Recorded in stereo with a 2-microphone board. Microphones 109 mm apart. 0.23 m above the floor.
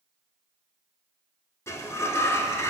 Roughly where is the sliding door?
Left.